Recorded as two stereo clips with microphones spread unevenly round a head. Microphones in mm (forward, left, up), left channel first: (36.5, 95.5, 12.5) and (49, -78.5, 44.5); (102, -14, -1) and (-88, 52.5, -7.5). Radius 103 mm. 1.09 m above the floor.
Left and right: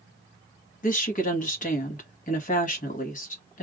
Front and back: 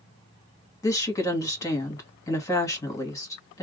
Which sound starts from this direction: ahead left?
A woman speaking, at 0.8 s.